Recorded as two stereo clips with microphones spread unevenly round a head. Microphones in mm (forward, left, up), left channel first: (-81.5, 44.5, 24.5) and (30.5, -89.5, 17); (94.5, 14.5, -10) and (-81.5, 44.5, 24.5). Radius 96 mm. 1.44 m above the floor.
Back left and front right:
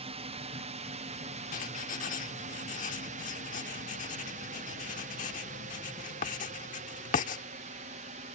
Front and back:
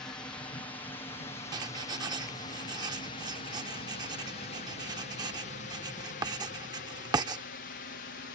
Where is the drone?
80° right; by 8.4 s straight ahead.